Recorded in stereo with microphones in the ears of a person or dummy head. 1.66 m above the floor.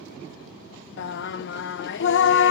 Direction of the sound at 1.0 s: 60° left (ahead or behind).